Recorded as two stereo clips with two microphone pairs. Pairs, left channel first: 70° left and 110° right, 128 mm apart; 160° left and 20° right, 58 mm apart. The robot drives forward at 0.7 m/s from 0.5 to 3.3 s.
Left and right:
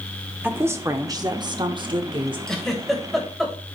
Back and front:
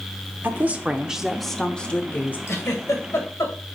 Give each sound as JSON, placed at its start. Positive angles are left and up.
{"t": 0.4, "sound": "a woman speaking", "azimuth_deg": -45, "distance_m": 1.0}
{"t": 2.5, "sound": "a giggle", "azimuth_deg": 155, "distance_m": 2.0}